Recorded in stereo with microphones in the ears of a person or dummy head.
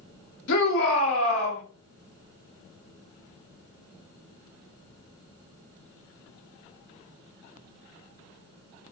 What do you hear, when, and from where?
0.5 s a shout: 75° left (ahead or behind), 1.0 m